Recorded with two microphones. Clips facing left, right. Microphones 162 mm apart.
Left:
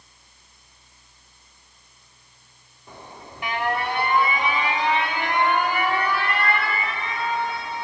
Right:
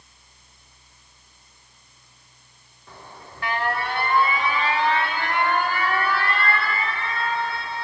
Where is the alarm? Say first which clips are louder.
Left 2 dB; 20° left (ahead or behind), 2.5 m.